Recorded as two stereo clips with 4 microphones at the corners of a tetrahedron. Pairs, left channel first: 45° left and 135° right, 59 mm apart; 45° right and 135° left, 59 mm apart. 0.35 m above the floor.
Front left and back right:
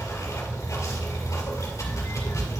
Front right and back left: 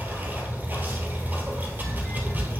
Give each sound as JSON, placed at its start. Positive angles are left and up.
{"t": 0.0, "sound": "running water", "azimuth_deg": 80, "distance_m": 2.0}